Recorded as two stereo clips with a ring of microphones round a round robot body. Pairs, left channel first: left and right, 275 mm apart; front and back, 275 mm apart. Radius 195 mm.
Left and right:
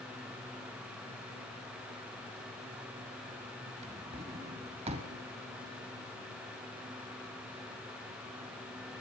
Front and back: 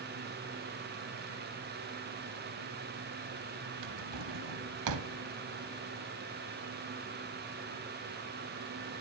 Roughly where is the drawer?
Behind.